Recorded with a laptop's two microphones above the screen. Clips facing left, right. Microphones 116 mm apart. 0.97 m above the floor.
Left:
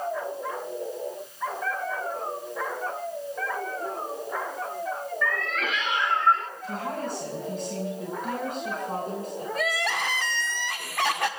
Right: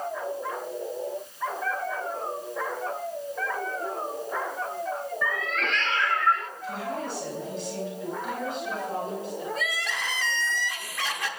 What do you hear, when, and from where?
5.2 s a cat meowing: 15° right (ahead or behind), 0.8 m; by 6.5 s 35° left (ahead or behind), 0.8 m
6.6 s a woman speaking: 50° left (ahead or behind), 6.5 m
9.6 s crying: 70° left (ahead or behind), 1.5 m